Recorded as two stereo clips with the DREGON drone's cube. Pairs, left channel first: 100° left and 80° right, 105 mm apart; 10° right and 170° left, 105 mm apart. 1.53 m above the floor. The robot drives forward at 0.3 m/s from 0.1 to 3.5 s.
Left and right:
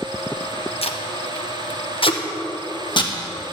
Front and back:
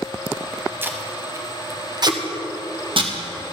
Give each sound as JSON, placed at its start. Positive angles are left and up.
{"t": 0.8, "sound": "tape being pulled", "azimuth_deg": 100, "distance_m": 0.8}